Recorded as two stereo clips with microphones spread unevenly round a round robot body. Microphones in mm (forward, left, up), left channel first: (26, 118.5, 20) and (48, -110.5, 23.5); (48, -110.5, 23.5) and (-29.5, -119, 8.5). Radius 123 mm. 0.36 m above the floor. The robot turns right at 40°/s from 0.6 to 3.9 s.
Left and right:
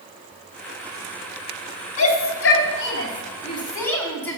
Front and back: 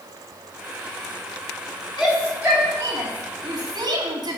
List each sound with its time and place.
2.0 s a shout: 100° left, 3 m; by 4.4 s 175° left, 3 m